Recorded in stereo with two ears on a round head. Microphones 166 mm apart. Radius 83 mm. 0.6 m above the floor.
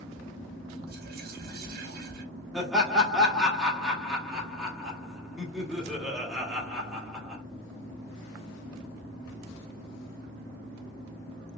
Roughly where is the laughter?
Centre.